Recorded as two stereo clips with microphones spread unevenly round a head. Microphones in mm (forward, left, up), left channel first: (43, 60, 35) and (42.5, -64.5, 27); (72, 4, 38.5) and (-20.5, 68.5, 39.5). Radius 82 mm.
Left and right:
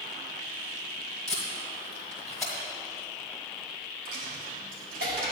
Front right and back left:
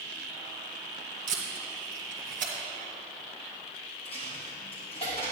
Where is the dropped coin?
90° right, 2.5 m.